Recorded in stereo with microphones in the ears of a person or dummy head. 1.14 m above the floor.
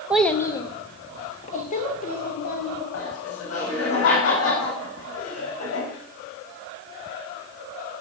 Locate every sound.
0.1 s a child speaking: 5° right (ahead or behind), 0.8 m; by 2.8 s 50° left (ahead or behind), 4 m
2.9 s laughter: 80° left, 6 m